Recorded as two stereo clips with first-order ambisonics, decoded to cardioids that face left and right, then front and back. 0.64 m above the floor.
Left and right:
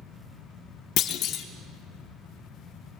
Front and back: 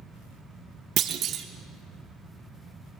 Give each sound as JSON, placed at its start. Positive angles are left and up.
{"t": 1.0, "sound": "a clunk", "azimuth_deg": 130, "distance_m": 0.7}